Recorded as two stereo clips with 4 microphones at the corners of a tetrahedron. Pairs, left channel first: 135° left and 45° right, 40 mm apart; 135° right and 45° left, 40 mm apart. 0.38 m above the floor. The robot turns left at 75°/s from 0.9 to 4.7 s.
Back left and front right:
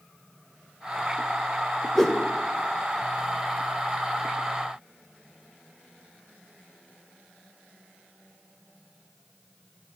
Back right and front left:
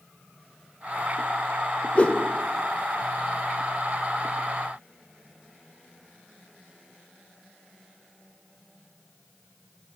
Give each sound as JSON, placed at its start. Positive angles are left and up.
{"t": 1.9, "sound": "a whoosh", "azimuth_deg": -150, "distance_m": 1.0}